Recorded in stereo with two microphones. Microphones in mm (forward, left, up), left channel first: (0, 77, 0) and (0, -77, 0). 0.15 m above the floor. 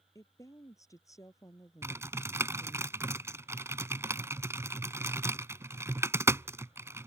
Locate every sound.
0.1 s a woman speaking: 20° left (ahead or behind)
1.8 s typing on a keyboard: 15° right (ahead or behind)